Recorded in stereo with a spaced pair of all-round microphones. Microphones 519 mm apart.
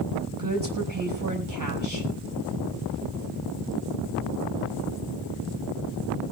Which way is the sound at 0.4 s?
40° right (ahead or behind).